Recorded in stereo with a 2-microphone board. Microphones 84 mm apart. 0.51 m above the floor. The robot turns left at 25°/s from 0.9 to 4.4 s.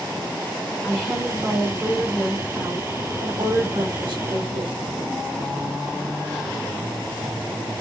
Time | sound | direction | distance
0.8 | a woman speaking | 10° left | 4.5 m